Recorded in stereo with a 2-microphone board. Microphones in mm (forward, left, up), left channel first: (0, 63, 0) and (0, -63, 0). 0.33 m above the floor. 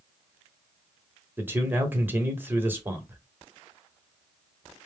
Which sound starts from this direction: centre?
A man speaking, at 1.4 s.